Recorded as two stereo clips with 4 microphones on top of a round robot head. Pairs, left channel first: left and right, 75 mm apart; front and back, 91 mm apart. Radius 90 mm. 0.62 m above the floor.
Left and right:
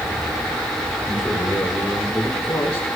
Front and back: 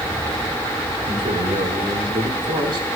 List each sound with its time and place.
1.1 s a man speaking: straight behind, 7 m; by 2.9 s 155° left, 6 m